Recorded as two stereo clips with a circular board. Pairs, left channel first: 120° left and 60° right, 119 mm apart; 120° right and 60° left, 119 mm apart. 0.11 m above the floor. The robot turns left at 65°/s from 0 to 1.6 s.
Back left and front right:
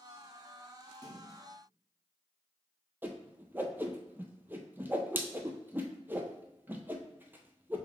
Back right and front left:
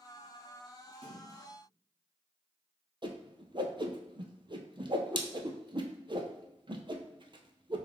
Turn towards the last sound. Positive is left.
turn(degrees=15)